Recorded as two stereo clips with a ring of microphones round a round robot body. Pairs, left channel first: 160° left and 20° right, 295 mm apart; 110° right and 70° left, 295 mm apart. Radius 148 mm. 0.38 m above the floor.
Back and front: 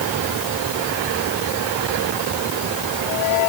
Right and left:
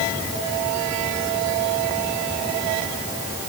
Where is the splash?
I don't hear a splash.